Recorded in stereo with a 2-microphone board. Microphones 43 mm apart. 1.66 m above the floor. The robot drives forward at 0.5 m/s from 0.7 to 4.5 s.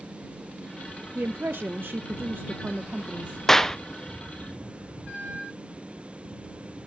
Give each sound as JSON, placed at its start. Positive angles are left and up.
{"t": 1.1, "sound": "a woman speaking", "side_deg": -50, "distance_m": 1.0}
{"t": 3.5, "sound": "a clap", "side_deg": 10, "distance_m": 0.8}